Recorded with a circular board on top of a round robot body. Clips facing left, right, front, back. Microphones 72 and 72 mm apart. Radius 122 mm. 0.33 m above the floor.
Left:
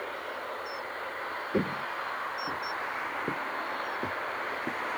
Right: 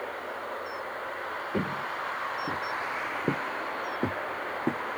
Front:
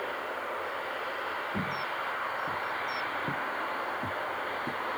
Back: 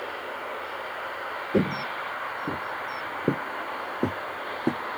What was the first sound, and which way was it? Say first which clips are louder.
Footsteps: left 1 dB, back 7 dB; 165° left.